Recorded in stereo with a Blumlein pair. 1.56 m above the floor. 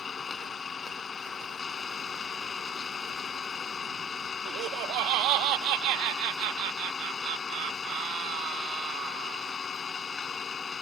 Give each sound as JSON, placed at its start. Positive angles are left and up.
{"t": 0.0, "sound": "an engine running", "azimuth_deg": 15}
{"t": 4.5, "sound": "laughter", "azimuth_deg": -40}